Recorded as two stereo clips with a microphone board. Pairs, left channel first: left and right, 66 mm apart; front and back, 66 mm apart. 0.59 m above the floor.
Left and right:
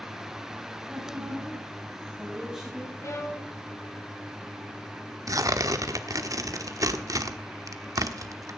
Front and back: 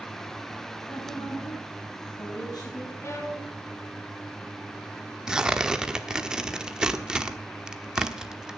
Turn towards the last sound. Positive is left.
turn(degrees=-105)